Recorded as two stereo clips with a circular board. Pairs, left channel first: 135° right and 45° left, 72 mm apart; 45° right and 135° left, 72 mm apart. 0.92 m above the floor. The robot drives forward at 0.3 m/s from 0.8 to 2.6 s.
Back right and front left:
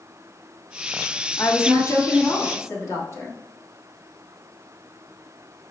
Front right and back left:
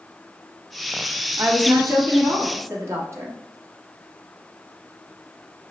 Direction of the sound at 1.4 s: Straight behind.